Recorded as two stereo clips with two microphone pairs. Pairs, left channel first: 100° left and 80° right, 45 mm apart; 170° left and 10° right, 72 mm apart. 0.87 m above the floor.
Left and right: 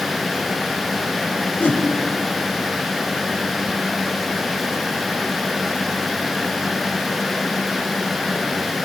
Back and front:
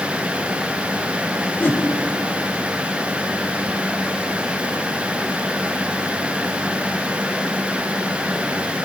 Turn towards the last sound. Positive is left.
turn(degrees=120)